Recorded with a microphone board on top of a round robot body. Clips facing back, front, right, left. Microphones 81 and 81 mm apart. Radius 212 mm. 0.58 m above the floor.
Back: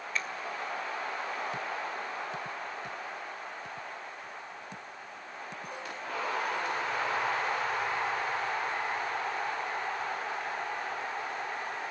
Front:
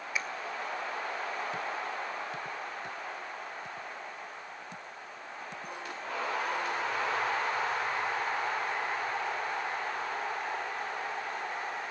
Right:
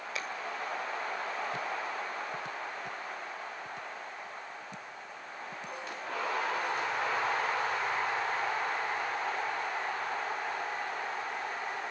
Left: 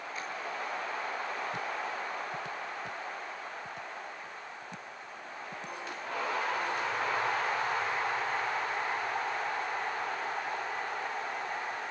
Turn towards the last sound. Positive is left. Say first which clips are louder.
# even, right 2 dB
turn(degrees=-80)